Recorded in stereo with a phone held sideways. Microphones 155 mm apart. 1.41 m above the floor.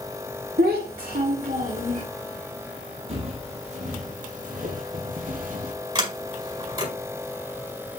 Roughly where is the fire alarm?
No fire alarm in this recording.